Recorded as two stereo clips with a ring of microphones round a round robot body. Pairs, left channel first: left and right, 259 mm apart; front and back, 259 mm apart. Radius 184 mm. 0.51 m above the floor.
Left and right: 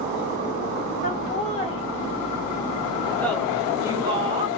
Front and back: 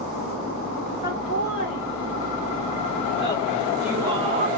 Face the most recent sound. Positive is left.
turn(degrees=-140)